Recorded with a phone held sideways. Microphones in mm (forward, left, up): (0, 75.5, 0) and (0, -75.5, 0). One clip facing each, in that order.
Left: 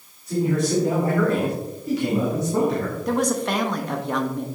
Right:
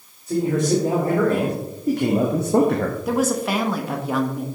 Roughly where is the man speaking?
Right.